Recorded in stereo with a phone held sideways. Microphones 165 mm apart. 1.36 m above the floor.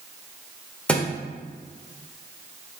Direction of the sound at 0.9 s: 5° left (ahead or behind).